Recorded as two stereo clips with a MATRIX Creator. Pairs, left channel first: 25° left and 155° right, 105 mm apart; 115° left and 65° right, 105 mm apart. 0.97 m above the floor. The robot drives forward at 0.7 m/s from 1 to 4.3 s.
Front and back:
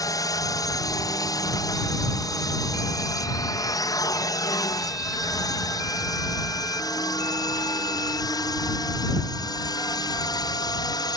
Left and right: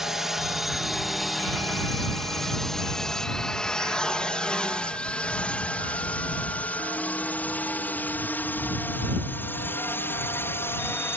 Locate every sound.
0.0 s a drone: 15° left; by 11.2 s 55° left